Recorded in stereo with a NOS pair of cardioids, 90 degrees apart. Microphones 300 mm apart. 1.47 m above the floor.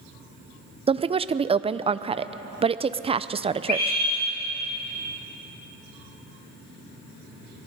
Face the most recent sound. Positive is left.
turn(degrees=35)